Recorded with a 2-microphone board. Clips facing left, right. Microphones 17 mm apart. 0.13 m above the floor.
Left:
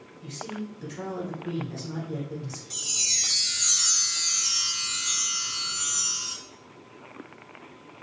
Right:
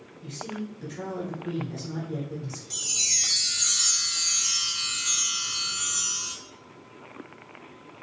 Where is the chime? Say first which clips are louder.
Even; 10° right (ahead or behind), 1.2 m.